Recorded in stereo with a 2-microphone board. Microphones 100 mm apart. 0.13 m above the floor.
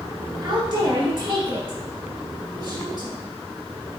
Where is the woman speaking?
30° right (ahead or behind), 1.7 m.